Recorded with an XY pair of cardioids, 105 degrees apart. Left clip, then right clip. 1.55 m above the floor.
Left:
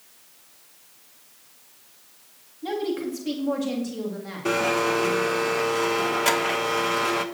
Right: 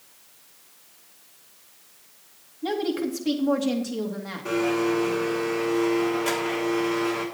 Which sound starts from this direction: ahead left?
A blender, at 4.5 s.